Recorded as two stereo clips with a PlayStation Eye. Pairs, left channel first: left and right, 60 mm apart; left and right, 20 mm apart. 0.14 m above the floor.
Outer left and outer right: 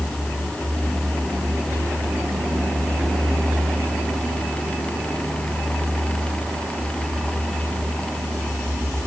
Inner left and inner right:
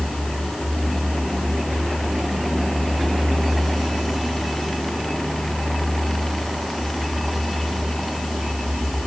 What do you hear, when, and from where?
Only background noise.